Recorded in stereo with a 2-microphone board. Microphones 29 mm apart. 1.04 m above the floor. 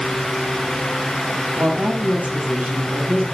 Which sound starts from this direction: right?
A woman speaking, at 1.6 s.